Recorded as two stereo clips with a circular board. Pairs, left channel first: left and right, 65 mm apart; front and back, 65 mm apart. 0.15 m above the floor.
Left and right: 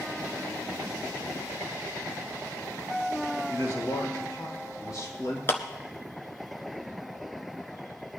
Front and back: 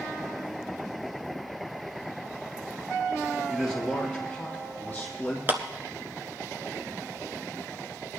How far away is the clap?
About 1.2 m.